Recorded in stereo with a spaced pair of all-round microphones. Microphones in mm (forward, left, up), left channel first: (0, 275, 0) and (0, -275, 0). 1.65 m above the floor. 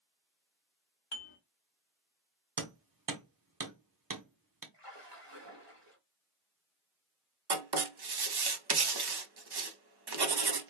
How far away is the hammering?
About 0.9 m.